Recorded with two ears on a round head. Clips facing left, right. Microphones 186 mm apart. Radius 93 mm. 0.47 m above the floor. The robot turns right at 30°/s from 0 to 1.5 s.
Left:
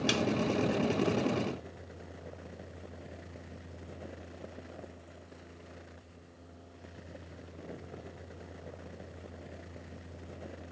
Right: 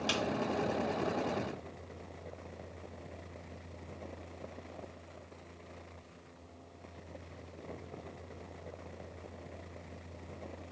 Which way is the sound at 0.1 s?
25° left (ahead or behind).